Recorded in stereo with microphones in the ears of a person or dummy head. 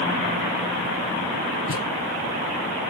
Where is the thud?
50° left (ahead or behind), 2.5 m.